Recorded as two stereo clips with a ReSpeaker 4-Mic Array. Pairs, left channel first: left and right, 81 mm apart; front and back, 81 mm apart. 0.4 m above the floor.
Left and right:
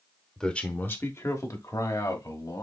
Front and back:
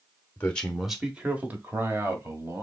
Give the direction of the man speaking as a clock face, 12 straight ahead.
11 o'clock.